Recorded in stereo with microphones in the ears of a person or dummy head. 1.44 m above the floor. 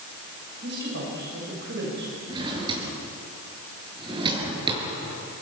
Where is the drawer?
25° right (ahead or behind), 6 m.